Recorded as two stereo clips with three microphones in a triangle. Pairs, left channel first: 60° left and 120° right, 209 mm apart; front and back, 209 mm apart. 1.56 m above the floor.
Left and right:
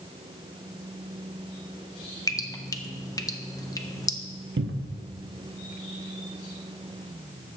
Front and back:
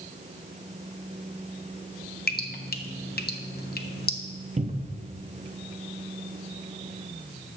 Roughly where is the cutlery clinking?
No cutlery clinking in this recording.